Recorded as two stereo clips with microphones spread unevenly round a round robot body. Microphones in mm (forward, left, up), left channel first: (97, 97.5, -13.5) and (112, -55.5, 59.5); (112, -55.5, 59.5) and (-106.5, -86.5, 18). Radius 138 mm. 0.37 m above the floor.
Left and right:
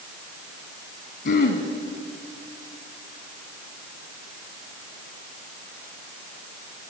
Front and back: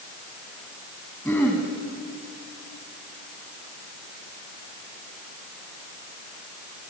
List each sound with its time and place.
1.2 s throat clearing: 90° left, 3 m